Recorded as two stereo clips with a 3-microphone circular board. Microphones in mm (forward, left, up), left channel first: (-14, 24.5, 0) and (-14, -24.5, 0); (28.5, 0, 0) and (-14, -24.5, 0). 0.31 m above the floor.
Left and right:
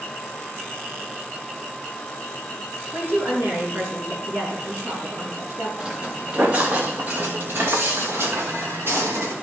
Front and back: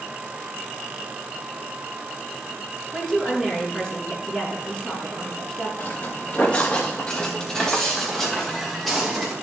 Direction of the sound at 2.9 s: 50° right.